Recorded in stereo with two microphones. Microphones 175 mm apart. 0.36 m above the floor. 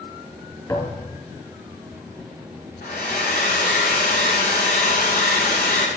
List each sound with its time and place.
0.7 s a thud: 20° left (ahead or behind), 3.5 m
2.8 s a hair dryer: 60° left (ahead or behind), 5.5 m